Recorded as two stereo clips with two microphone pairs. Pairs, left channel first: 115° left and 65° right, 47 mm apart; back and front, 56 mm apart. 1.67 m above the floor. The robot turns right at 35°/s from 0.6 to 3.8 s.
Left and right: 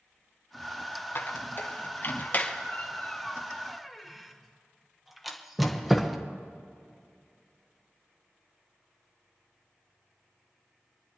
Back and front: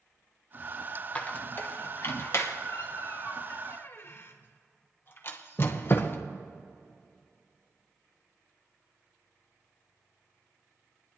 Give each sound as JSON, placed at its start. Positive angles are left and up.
{"t": 1.1, "sound": "a squeak", "azimuth_deg": 120, "distance_m": 1.0}